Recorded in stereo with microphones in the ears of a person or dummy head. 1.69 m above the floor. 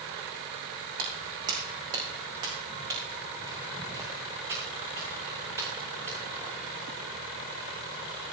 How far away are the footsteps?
About 4 m.